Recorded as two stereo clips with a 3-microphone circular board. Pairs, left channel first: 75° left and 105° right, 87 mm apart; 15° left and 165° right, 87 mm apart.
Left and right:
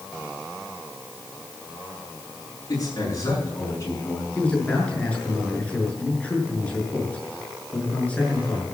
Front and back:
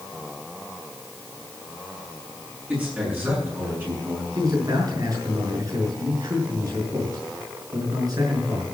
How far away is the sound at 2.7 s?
About 7 m.